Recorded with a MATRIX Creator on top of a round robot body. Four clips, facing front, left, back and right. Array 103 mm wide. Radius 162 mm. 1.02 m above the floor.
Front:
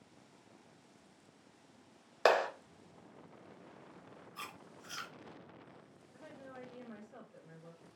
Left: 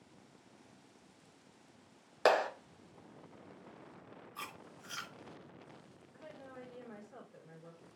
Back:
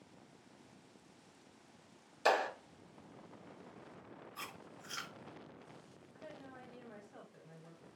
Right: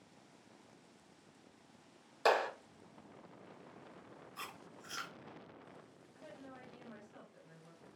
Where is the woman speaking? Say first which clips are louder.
Left 2 dB, front 1 dB; 70° left, 1.5 m.